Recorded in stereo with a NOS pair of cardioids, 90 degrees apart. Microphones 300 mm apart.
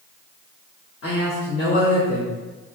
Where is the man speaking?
50° left, 1.0 m; by 2.4 s 5° left, 0.7 m.